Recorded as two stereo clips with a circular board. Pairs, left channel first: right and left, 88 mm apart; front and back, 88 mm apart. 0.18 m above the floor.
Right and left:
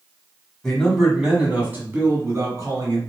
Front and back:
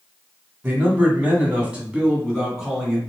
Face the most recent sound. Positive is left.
turn(degrees=95)